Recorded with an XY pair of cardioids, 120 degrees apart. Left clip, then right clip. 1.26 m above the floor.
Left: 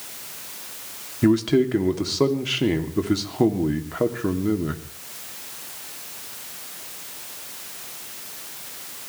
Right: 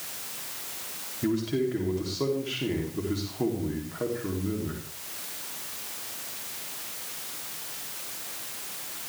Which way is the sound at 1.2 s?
55° left.